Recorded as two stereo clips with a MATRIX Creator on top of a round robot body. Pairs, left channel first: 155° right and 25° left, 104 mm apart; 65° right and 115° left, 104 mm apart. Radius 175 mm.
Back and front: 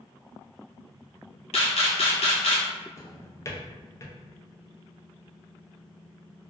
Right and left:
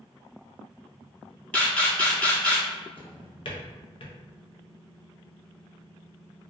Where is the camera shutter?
145° right, 0.7 m.